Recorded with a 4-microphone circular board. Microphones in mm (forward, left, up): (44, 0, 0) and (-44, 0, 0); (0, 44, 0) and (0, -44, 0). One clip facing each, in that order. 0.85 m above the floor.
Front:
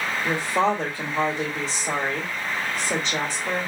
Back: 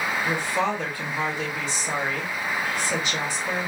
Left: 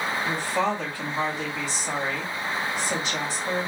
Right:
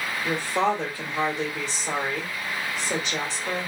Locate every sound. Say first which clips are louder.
0.2 s a woman speaking: front 5 dB, right 4 dB; 30° right, 1.9 m